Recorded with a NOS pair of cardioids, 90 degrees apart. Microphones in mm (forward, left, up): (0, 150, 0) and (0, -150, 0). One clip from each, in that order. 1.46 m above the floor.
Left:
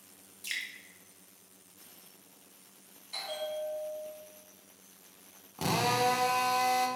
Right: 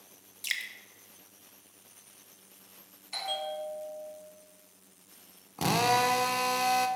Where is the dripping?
50° right, 1.1 m.